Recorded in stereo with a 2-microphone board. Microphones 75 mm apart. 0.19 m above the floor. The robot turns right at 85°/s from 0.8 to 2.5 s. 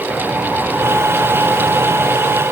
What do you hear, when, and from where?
Only background noise.